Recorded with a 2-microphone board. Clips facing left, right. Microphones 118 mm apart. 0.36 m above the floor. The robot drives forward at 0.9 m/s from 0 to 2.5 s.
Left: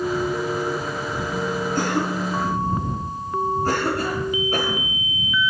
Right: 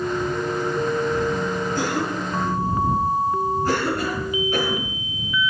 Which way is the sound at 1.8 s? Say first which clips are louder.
Left 1 dB; 50° left (ahead or behind).